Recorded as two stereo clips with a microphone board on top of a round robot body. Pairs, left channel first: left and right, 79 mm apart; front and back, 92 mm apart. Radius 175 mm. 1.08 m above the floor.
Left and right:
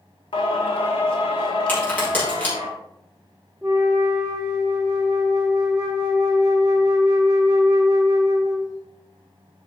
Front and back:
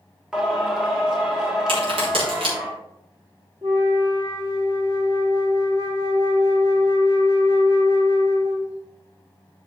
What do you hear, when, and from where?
0.3 s singing: 95° left, 1.2 m
1.7 s a crack: 165° left, 5 m
3.6 s a flute: 160° right, 0.5 m